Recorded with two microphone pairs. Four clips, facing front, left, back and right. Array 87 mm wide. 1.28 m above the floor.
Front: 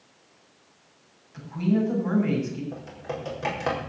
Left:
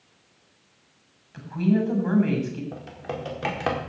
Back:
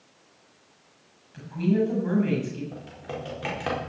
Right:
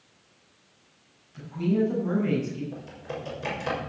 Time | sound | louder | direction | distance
1.3 | a woman speaking | left 2 dB, even | 80° left | 7.5 m
2.7 | typing on a keyboard | left 3 dB, front 2 dB | 75° left | 4.5 m